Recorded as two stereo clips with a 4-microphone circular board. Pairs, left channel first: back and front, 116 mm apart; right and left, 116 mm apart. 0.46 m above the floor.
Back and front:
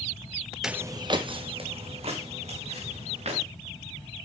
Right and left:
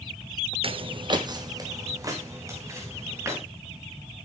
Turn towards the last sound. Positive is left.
turn(degrees=25)